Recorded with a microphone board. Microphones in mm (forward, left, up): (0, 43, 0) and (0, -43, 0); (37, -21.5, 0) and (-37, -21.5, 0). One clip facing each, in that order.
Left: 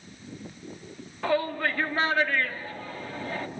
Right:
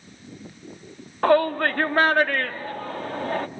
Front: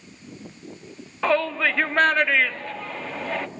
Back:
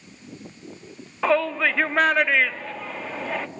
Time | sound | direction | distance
1.2 | a shout | 95° right | 1.5 m